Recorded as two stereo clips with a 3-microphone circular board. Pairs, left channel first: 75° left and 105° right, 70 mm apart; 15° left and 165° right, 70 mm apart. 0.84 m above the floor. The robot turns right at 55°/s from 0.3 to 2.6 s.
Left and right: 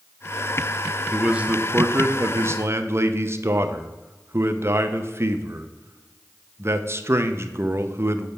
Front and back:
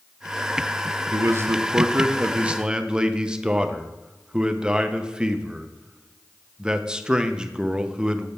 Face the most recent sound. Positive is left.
turn(degrees=-95)